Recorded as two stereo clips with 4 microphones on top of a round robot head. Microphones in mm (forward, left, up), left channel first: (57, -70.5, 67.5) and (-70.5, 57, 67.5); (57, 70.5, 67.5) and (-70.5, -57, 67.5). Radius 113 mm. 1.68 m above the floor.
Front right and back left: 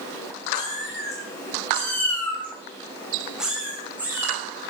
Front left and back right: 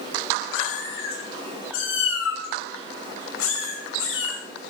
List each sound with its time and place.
0.5 s a cat meowing: 25° left, 7 m; by 4.4 s 55° left, 6 m